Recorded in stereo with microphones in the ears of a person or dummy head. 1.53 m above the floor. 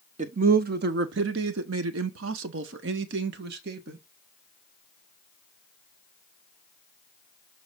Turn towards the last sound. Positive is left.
turn(degrees=-55)  # may be behind; listen again after turning